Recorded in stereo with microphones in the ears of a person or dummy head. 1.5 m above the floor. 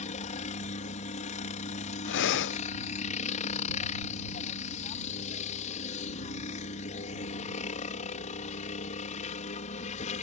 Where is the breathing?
70° left (ahead or behind).